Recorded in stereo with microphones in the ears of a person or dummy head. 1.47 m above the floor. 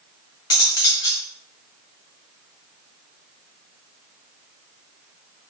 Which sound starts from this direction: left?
Cutlery clinking, at 0.5 s.